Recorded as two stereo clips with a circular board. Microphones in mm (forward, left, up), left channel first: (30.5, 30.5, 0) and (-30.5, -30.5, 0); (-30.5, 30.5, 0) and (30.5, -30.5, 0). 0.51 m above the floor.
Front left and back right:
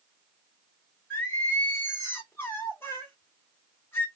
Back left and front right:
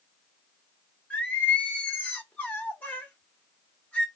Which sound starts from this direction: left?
Singing, at 1.1 s.